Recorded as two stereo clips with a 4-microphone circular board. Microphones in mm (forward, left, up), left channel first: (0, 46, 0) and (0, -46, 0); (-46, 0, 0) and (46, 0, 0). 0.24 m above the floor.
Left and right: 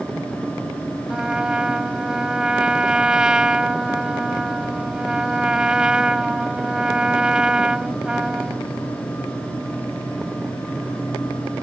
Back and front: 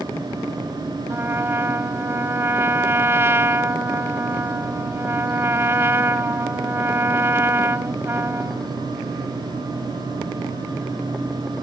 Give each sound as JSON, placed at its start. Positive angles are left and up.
{"t": 1.1, "sound": "a trumpet", "azimuth_deg": -20}